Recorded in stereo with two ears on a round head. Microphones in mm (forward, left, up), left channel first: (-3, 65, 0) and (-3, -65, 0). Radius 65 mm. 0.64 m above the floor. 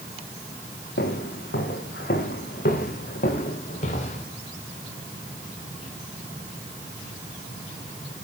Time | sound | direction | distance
1.0 | footsteps | 80° left | 7 m